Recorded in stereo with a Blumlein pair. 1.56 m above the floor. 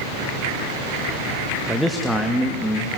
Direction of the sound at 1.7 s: Straight ahead.